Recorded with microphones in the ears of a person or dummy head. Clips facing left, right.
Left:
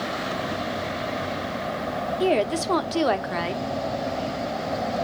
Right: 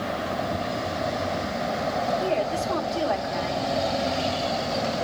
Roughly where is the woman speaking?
Left.